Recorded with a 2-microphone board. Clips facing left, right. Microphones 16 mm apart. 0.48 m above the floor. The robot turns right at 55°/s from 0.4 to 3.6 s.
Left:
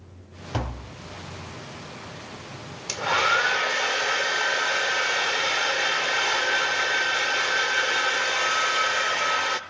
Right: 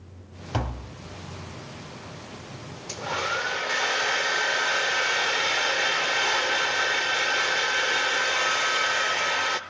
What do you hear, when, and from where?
0.5 s tapping: 5° right (ahead or behind), 1.9 m; by 0.9 s 15° left (ahead or behind), 1.9 m
2.9 s a hair dryer: 100° left, 0.7 m; by 9.6 s 140° left, 0.7 m